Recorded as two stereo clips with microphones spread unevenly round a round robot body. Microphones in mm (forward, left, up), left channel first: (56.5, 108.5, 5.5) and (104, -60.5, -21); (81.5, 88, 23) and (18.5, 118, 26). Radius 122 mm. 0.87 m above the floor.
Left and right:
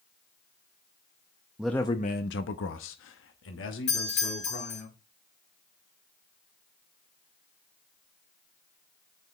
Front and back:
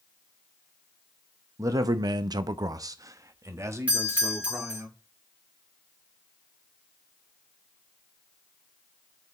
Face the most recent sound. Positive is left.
turn(degrees=85)